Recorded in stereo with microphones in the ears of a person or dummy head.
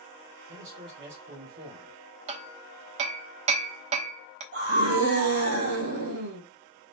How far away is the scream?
About 2 m.